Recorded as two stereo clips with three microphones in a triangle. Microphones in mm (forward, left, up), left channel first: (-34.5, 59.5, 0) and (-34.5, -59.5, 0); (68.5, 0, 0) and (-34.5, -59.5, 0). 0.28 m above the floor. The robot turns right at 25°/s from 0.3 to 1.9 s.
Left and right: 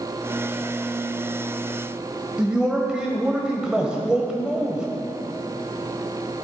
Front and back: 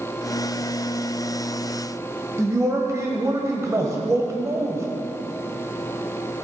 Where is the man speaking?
165° right, 1.4 m.